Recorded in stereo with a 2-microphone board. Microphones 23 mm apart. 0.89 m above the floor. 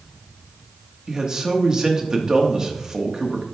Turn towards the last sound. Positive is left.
turn(degrees=-30)  # may be behind; listen again after turning